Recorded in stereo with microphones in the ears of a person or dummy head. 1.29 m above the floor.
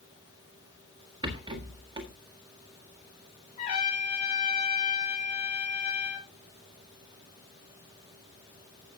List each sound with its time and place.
1.2 s a rattle: 25° right (ahead or behind), 1.6 m
3.6 s a trumpet: 40° left (ahead or behind), 6 m